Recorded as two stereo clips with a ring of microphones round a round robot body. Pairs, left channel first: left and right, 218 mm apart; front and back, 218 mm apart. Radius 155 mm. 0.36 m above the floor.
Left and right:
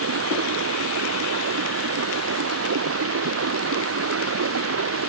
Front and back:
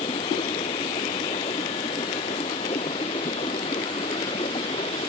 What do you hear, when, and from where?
0.0 s running water: 75° right